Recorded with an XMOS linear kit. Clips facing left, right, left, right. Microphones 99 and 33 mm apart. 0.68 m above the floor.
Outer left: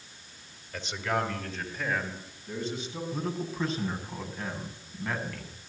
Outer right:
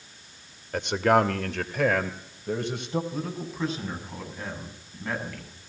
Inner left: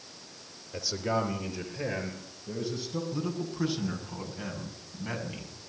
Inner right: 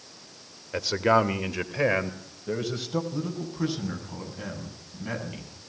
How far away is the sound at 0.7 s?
About 1.8 m.